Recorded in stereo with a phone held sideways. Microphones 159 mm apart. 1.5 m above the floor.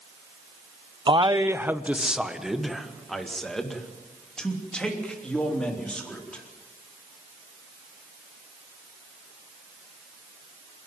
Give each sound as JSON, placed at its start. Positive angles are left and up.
{"t": 1.1, "sound": "a man speaking", "side_deg": -30, "distance_m": 0.5}